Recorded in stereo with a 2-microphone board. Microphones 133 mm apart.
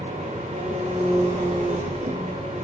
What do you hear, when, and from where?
0.0 s an engine running: 55° right (ahead or behind), 7 m